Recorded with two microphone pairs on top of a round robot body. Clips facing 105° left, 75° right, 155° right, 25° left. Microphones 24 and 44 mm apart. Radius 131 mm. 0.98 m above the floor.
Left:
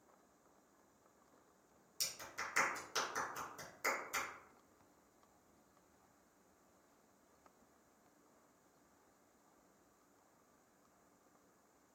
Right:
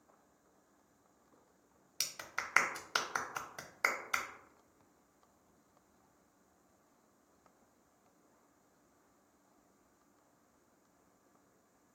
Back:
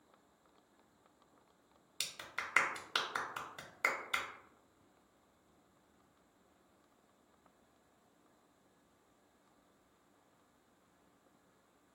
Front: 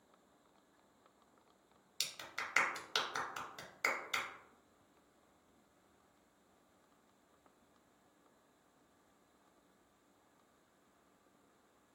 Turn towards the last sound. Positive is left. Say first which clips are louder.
# right 4 dB, back 1 dB
turn(degrees=-75)